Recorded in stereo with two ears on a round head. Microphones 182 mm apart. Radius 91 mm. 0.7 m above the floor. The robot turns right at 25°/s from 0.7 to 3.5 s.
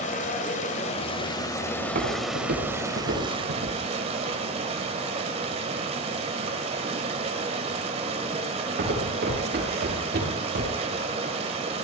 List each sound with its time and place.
0.0 s running water: 140° left, 1.8 m; by 11.8 s 150° right, 1.8 m
1.8 s footsteps: 45° right (ahead or behind), 5 m; by 11.0 s 50° right (ahead or behind), 8.5 m